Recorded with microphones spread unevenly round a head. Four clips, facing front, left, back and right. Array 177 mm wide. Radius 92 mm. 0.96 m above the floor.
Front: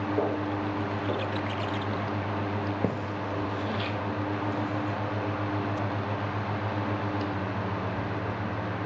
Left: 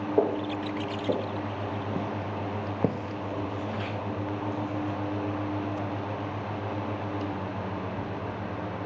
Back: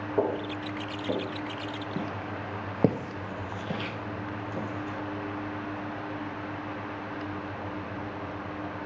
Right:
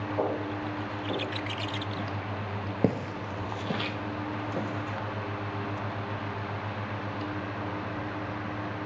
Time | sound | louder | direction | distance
0.2 | footsteps | left 5 dB, back 3 dB | 90° left | 3 m